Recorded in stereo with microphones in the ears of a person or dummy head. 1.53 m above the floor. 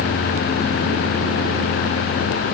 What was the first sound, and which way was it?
Only background noise.